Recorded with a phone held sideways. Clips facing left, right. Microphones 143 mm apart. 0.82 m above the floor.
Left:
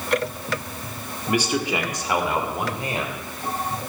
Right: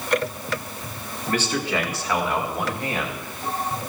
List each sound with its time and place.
1.3 s a man speaking: 10° left (ahead or behind), 1.3 m; by 3.2 s 20° left (ahead or behind), 3.5 m